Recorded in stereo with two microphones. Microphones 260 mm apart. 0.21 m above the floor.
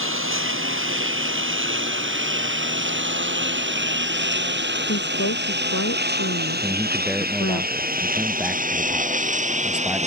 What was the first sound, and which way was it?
A lawn mower, 50° right (ahead or behind).